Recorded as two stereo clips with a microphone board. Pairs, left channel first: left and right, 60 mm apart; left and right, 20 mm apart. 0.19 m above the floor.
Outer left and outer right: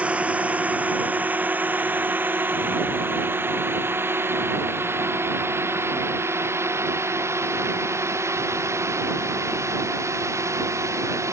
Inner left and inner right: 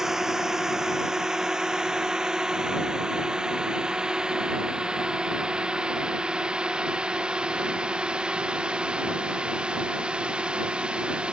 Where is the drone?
20° right (ahead or behind); by 11.3 s 55° right (ahead or behind).